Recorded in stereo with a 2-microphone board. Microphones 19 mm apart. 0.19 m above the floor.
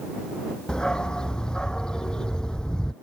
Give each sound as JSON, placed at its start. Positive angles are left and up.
{"t": 0.7, "sound": "a dog barking", "side_deg": 40}